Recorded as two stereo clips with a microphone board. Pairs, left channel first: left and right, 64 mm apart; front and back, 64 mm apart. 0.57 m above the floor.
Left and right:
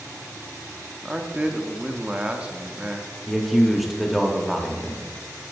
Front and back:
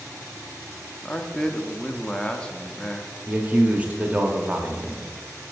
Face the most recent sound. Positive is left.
turn(degrees=180)